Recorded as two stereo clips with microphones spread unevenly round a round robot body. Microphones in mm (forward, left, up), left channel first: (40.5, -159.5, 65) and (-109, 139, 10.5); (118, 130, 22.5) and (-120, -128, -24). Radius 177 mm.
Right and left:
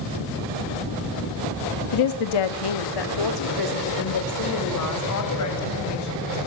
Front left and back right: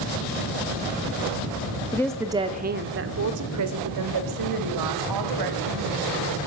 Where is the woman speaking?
35° right, 1.2 m; by 6.4 s 105° right, 5.5 m.